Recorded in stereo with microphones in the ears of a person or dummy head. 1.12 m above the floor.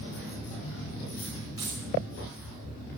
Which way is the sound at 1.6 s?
25° right (ahead or behind).